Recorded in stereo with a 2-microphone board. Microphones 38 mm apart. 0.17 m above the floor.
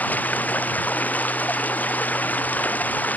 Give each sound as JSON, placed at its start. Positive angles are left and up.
{"t": 0.0, "sound": "running water", "side_deg": 45}